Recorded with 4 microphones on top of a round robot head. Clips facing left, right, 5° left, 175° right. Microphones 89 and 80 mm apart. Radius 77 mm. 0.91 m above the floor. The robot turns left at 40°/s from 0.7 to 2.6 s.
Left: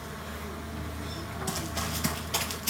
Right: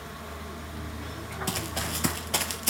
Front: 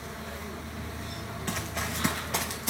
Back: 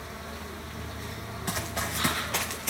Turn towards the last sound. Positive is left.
turn(degrees=-70)